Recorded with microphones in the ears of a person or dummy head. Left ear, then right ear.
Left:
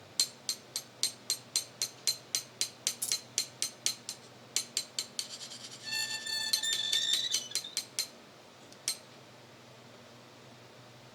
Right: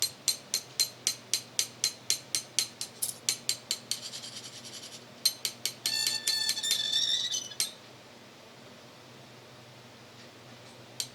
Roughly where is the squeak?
Left.